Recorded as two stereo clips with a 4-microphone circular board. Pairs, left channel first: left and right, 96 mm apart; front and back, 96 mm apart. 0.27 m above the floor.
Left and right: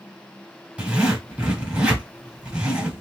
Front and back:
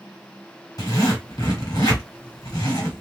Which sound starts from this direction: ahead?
A zipper, at 0.8 s.